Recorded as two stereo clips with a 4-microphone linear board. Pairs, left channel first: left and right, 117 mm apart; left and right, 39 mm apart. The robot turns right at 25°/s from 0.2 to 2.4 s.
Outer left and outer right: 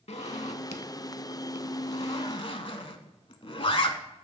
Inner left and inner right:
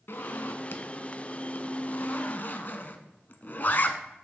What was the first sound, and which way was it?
A zipper, 70° left (ahead or behind).